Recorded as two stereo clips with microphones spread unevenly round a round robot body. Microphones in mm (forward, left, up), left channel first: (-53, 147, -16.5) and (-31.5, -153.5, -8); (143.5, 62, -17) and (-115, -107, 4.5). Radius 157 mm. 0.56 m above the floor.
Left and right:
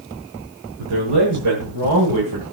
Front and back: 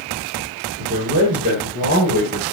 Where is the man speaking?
80° right, 6.5 m.